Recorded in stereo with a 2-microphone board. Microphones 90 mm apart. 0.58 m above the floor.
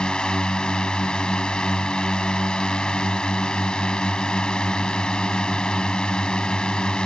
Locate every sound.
0.0 s a drone: 10° left (ahead or behind)